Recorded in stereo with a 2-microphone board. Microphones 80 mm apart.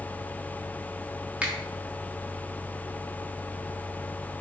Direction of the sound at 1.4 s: 15° right (ahead or behind).